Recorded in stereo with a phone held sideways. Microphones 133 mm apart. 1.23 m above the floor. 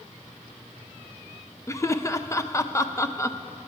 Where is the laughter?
20° left (ahead or behind), 0.5 m.